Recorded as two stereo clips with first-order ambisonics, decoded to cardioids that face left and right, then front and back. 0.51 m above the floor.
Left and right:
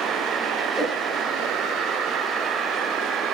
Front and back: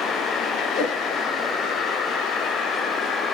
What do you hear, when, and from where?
0.8 s a whoosh: 5° left, 5.5 m